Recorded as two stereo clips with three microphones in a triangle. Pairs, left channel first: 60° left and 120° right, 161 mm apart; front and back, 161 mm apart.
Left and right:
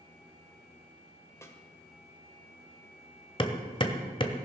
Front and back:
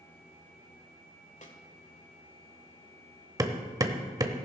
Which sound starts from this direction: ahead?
A snare drum, at 1.4 s.